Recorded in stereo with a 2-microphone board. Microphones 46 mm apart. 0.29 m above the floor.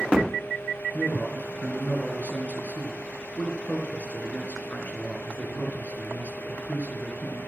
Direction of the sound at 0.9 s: 35° left (ahead or behind).